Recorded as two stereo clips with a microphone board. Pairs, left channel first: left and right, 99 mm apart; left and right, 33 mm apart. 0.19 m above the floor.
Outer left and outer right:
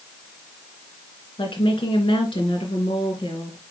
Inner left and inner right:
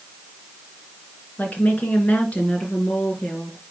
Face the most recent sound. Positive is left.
turn(degrees=50)  # may be behind; listen again after turning